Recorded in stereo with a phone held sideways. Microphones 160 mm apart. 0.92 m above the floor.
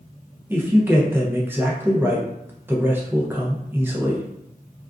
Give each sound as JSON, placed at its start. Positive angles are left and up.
{"t": 0.5, "sound": "a man speaking", "side_deg": -10, "distance_m": 0.6}